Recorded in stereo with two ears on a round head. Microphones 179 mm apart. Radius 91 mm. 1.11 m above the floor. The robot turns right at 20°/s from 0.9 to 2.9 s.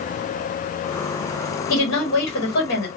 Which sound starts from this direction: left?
A woman speaking, at 1.7 s.